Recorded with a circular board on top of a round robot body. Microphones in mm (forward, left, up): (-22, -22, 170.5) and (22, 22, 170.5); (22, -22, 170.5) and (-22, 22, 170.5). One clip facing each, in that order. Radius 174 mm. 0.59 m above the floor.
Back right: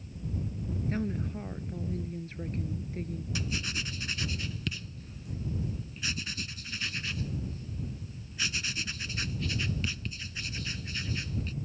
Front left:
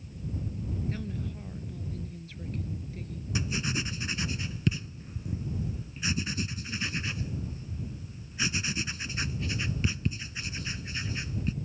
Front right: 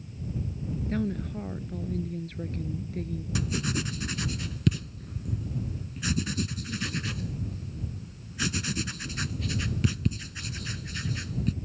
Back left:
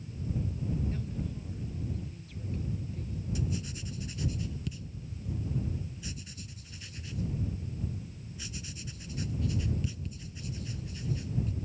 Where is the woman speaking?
80° right.